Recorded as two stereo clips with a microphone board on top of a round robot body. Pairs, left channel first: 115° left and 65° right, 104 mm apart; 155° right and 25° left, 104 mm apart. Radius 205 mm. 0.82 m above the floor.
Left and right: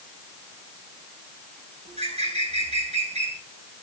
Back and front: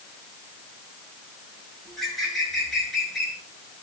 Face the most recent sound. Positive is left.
turn(degrees=-70)